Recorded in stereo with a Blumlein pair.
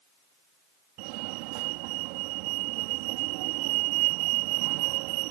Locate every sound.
1.0 s a fire alarm: 45° right